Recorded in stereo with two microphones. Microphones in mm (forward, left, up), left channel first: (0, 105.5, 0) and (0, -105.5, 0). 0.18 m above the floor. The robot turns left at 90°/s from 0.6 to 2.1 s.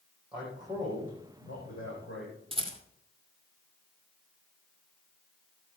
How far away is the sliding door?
No sliding door in this recording.